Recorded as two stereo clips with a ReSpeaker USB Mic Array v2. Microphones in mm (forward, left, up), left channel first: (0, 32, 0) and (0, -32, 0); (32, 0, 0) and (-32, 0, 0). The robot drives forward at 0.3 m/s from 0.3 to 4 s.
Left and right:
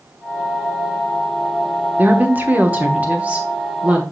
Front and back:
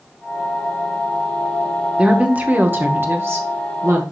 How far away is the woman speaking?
About 0.8 m.